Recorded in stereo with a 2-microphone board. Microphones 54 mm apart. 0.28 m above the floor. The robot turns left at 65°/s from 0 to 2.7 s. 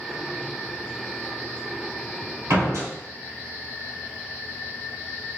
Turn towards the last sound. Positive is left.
turn(degrees=-65)  # may be behind; listen again after turning